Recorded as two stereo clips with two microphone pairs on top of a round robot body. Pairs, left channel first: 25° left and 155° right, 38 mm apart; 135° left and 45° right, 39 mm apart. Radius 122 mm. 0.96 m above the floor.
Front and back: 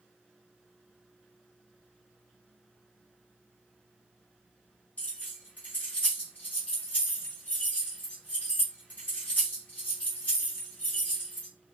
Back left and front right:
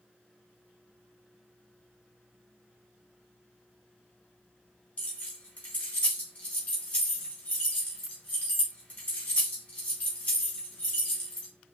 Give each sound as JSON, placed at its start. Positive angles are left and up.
{"t": 5.0, "sound": "keys jangling", "azimuth_deg": 85, "distance_m": 0.7}